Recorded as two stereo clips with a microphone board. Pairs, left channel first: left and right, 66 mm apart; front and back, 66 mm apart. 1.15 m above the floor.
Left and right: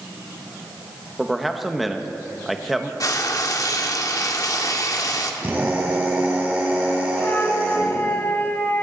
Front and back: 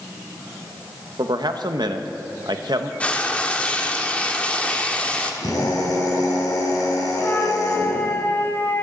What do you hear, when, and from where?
1.2 s a man speaking: 175° right, 1.0 m
3.0 s frying: 70° left, 1.1 m
5.4 s a drill: 25° right, 4 m
7.2 s a flute: 45° left, 1.3 m